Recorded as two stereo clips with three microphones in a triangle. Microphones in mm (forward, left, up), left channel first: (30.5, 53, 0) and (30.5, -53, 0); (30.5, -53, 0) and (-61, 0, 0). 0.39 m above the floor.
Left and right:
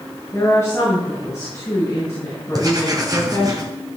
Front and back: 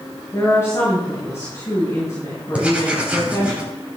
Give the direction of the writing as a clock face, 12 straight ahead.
4 o'clock.